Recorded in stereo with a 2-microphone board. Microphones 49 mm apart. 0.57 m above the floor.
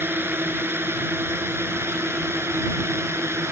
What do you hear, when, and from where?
0.0 s a drone: 50° right (ahead or behind); by 3.5 s 65° right (ahead or behind)